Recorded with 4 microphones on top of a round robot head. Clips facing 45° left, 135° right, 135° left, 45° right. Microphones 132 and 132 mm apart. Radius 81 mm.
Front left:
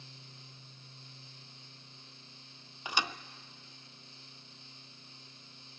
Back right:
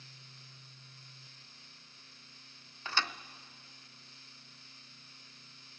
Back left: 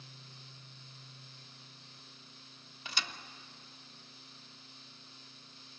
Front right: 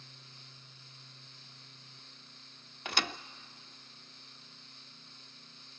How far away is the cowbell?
I don't hear a cowbell.